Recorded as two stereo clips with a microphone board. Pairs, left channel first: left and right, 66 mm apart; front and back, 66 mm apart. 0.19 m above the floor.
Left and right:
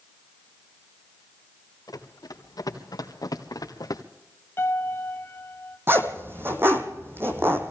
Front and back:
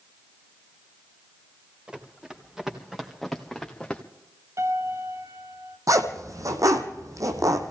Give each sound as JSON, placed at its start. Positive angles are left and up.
{"t": 1.9, "sound": "running footsteps", "azimuth_deg": 100, "distance_m": 3.0}
{"t": 4.6, "sound": "a piano", "azimuth_deg": 140, "distance_m": 1.6}
{"t": 5.9, "sound": "a zipper", "azimuth_deg": -145, "distance_m": 2.0}